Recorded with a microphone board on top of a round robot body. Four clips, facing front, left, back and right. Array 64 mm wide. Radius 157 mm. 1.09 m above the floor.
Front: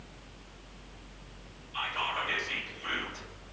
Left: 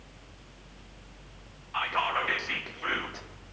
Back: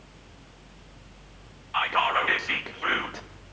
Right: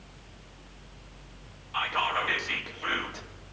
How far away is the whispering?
About 1.0 m.